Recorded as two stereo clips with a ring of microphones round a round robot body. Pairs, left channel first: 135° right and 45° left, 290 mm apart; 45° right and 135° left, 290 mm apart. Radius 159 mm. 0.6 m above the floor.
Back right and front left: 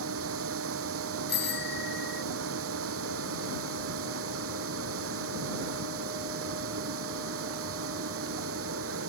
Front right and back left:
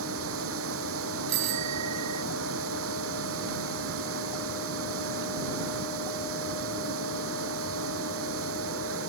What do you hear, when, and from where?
0.0 s running water: 90° left
1.3 s a bicycle bell: 170° left